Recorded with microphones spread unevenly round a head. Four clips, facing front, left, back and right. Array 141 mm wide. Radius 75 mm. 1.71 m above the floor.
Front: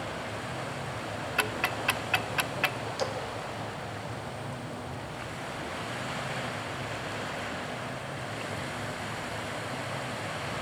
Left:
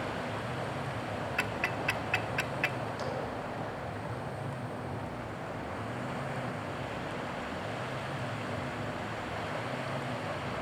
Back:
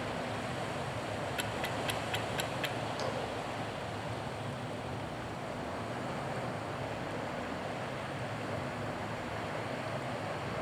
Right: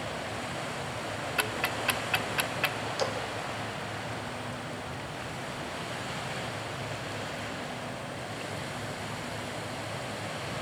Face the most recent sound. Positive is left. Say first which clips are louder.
# right 7 dB, front 6 dB
turn(degrees=-45)